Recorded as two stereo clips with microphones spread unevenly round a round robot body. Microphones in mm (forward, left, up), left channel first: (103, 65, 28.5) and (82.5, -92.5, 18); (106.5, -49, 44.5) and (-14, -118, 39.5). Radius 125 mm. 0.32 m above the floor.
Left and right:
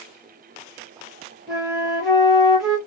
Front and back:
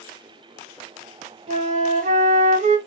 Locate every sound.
1.5 s a flute: 175° left, 0.6 m